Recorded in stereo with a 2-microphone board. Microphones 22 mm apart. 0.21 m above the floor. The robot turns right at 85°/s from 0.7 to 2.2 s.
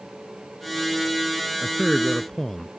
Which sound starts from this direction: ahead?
A man speaking, at 1.6 s.